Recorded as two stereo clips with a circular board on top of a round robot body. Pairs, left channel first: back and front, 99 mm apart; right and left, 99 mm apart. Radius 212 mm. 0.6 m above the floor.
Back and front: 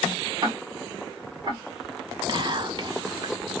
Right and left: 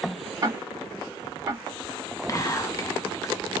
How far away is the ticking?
About 1.8 m.